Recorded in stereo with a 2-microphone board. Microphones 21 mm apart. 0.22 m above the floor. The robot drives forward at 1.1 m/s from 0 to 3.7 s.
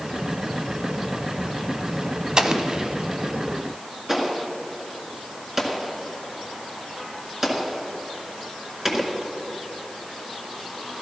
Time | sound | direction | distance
2.4 | an explosion | 40° right (ahead or behind) | 0.8 m